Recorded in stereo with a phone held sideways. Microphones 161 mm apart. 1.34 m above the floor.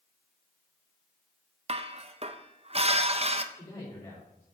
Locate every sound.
1.7 s dishes clattering: 40° right (ahead or behind), 0.6 m
3.5 s a man speaking: 25° left (ahead or behind), 4 m